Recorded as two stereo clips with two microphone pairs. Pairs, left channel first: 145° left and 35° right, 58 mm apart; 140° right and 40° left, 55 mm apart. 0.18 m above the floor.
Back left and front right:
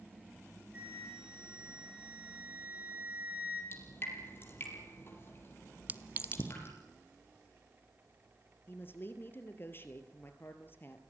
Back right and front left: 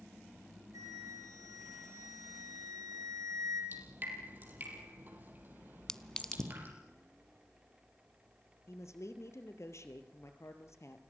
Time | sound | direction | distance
0.7 | a flute | 30° left | 7.5 m
3.7 | dripping | 95° left | 5.5 m
5.9 | a clink | 70° right | 0.7 m
8.7 | a woman speaking | 165° right | 3 m